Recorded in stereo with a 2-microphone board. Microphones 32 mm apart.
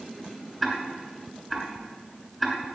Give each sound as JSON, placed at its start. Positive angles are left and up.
{"t": 0.6, "sound": "ticking", "side_deg": -10, "distance_m": 2.5}